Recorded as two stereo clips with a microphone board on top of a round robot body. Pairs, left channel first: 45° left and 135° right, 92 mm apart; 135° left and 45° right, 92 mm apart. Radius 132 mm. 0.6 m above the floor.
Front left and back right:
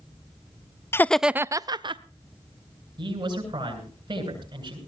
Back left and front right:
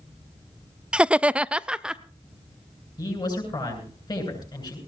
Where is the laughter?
25° left, 0.6 m; by 2.0 s 125° right, 0.8 m.